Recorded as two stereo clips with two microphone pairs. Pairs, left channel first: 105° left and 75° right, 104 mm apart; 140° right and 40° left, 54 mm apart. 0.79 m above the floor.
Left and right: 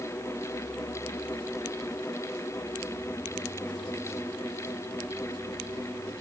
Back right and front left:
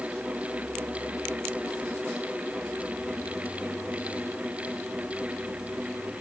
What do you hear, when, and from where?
Only background noise.